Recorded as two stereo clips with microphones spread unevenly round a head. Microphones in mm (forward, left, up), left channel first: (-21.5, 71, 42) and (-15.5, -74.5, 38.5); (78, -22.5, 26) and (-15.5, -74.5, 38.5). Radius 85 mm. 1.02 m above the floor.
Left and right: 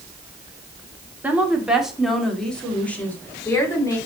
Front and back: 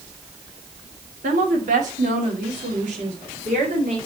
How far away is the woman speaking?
About 2.5 m.